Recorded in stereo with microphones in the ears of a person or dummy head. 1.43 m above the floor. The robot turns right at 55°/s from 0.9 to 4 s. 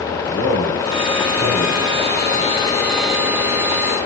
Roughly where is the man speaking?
Ahead right.